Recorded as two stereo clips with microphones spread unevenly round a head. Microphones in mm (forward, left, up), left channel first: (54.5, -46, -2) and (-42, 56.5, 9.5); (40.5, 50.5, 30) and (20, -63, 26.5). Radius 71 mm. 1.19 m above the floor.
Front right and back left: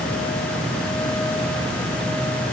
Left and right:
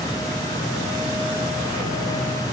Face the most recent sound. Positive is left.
No sound to turn to.